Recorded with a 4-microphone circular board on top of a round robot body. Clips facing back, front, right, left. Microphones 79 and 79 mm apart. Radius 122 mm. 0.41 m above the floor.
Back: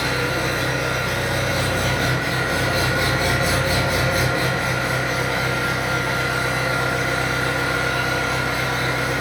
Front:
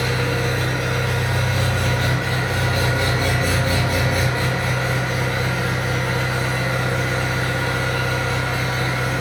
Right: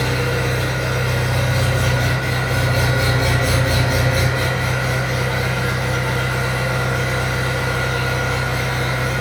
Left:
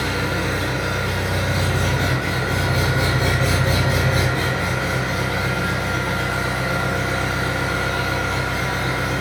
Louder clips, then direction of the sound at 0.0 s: Even, right 2 dB; 120° left.